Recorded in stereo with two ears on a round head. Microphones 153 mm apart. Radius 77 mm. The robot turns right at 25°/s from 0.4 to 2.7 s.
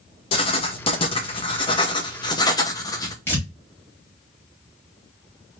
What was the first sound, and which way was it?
Writing, 80° left.